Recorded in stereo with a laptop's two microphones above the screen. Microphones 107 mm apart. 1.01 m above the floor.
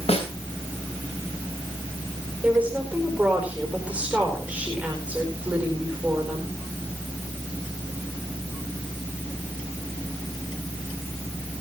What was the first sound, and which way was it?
A snare drum, 70° left (ahead or behind).